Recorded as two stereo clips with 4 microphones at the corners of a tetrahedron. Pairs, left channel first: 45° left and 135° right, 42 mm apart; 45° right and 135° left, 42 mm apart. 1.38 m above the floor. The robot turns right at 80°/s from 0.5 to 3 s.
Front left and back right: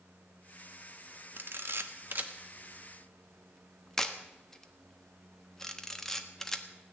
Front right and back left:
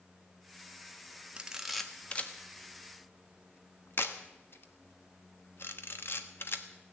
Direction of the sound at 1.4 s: 165° right.